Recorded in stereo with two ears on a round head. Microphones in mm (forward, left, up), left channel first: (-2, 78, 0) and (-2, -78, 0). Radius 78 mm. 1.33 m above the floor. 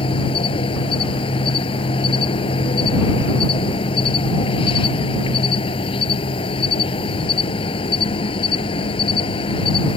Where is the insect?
30° left (ahead or behind).